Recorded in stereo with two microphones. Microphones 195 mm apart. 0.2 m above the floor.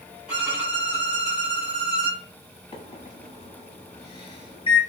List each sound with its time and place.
0.3 s a violin: 5° right (ahead or behind), 1.8 m
2.7 s a microwave: 30° left (ahead or behind), 0.9 m